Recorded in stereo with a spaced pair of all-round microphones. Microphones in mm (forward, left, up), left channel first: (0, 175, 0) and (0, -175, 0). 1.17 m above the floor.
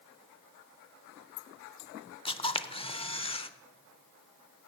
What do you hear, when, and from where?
2.2 s a camera shutter: 15° left (ahead or behind), 0.5 m